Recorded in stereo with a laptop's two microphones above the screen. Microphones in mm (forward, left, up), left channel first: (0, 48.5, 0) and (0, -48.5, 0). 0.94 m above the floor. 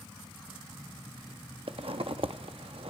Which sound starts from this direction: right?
A zipper, at 1.7 s.